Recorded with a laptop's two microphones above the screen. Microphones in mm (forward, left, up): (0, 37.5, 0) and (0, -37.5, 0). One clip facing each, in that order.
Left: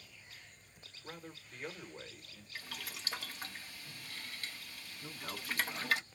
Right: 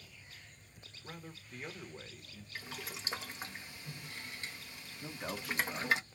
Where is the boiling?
20° right (ahead or behind), 0.8 m.